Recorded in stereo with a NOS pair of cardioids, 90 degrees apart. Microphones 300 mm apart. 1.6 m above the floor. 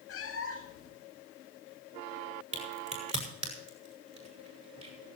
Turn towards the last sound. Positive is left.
turn(degrees=-20)